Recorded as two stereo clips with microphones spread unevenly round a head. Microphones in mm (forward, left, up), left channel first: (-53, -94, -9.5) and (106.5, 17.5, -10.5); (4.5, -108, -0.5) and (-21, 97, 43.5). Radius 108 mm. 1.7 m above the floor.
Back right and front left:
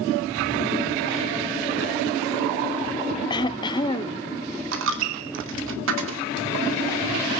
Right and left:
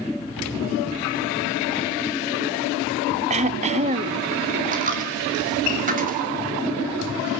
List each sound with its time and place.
3.3 s throat clearing: 145° left, 0.6 m
4.7 s a dropped coin: 50° left, 2.5 m